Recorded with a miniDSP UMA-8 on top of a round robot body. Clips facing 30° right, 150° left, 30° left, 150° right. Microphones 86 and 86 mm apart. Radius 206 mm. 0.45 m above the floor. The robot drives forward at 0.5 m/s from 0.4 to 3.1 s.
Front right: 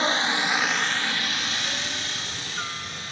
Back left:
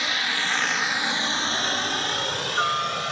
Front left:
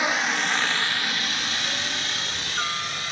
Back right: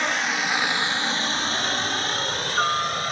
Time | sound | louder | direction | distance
0.0 | a helicopter | front right 3 dB, even | 50° right | ?